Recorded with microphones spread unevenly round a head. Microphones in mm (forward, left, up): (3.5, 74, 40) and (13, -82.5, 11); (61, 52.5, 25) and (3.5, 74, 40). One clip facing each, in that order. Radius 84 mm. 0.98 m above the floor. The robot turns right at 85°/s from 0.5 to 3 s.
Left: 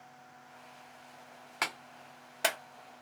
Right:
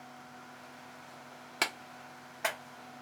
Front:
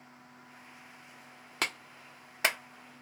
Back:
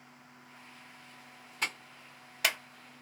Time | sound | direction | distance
1.6 | a clap | 30° right | 0.6 m